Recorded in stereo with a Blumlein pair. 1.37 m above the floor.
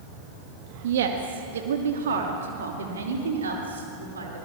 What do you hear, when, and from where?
0.8 s a woman speaking: 55° right, 2 m; by 4.5 s 70° right, 4.5 m